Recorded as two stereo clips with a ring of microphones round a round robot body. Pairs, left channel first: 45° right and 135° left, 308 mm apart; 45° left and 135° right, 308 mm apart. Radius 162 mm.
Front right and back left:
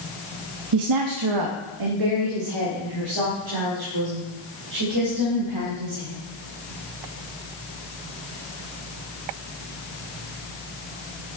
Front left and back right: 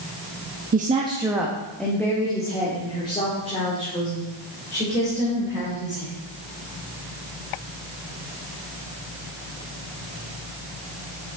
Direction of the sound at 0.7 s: 165° left.